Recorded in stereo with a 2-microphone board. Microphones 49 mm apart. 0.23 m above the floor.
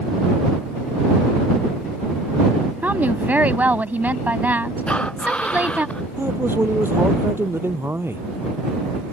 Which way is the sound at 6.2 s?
55° right (ahead or behind).